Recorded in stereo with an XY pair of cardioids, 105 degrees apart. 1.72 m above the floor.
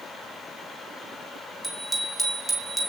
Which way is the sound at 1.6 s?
Straight ahead.